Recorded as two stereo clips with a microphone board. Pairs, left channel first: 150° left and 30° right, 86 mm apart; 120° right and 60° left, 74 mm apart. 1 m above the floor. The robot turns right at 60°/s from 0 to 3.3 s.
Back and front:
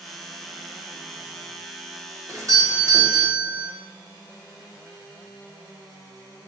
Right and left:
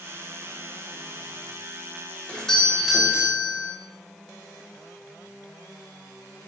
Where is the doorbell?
55° right, 1.3 m; by 3.7 s 5° left, 1.3 m.